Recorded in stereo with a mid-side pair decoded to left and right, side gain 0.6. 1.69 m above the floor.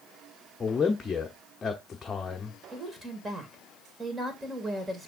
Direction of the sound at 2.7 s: 20° right.